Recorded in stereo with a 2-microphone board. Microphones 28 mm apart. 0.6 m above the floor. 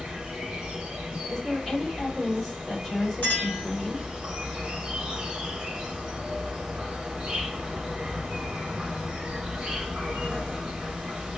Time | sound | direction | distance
0.0 | an insect | 20° right (ahead or behind) | 0.9 m
1.3 | a woman speaking | 5° left (ahead or behind) | 2.5 m
3.2 | a clink | 40° left (ahead or behind) | 2.0 m